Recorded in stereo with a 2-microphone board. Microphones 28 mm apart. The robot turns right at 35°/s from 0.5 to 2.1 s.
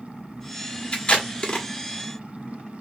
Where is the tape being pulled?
45° left (ahead or behind), 1.3 m; by 1.7 s 35° left (ahead or behind), 1.3 m.